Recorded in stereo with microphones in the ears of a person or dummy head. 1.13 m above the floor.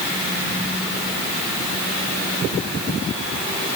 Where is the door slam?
I don't hear a door slam.